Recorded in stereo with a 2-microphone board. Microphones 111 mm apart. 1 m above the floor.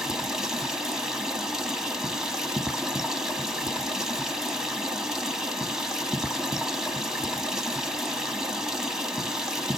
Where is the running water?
5° right (ahead or behind), 0.9 m.